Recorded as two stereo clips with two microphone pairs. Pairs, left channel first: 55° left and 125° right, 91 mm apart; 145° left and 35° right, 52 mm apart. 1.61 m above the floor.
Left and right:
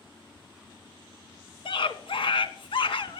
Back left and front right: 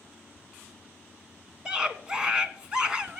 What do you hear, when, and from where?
1.6 s a scream: 30° left, 1.1 m